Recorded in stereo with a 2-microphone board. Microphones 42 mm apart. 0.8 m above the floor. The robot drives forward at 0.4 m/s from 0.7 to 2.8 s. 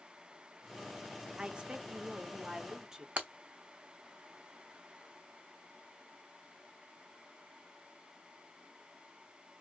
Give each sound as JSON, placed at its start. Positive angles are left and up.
{"t": 1.4, "sound": "a woman speaking", "side_deg": -25, "distance_m": 0.5}
{"t": 3.2, "sound": "breaking glass", "side_deg": -40, "distance_m": 0.7}